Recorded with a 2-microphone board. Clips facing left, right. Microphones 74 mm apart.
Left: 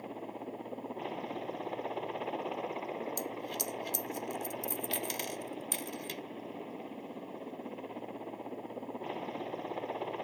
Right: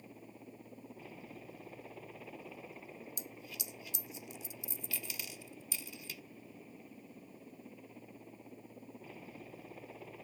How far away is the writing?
I don't hear writing.